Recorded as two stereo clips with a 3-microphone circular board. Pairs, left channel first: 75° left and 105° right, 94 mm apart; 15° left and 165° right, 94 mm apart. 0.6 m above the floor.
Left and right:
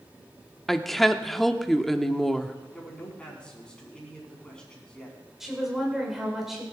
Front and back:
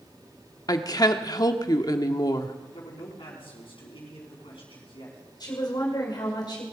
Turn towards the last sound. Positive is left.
turn(degrees=-20)